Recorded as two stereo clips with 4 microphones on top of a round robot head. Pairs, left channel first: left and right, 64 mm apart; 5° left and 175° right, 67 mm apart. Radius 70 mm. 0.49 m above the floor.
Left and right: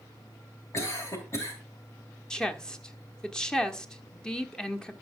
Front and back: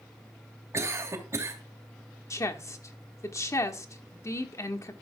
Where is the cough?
135° left, 3 m.